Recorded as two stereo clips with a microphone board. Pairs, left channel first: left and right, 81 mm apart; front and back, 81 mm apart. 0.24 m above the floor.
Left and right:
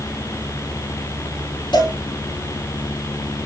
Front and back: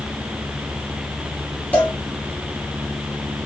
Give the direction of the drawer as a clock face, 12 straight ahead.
No drawer in this recording.